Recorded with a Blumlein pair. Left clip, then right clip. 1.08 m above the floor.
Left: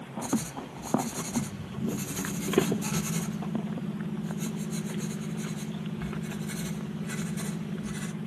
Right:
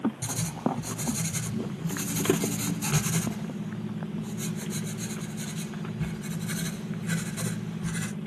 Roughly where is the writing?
Ahead right.